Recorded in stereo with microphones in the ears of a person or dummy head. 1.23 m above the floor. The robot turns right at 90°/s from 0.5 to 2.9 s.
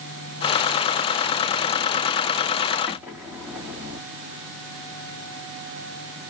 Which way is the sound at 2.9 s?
5° right (ahead or behind).